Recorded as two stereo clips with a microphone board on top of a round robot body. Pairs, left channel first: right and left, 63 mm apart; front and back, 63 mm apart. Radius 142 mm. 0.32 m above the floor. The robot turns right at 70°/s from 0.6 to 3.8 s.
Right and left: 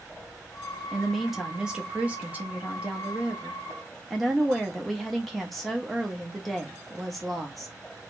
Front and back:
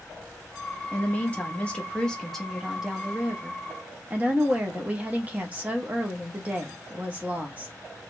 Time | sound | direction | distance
0.9 | a woman speaking | 20° right | 1.1 m